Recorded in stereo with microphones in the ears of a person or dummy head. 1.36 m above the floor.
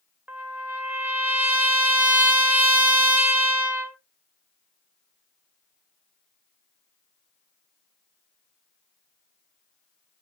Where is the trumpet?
10° right (ahead or behind), 0.5 m.